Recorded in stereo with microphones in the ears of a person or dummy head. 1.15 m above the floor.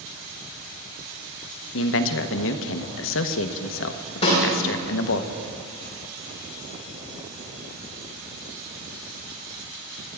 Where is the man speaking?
70° left (ahead or behind), 1.1 m.